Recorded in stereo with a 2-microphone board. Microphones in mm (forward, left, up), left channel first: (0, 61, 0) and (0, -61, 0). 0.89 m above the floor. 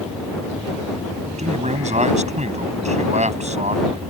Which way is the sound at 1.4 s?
75° right (ahead or behind).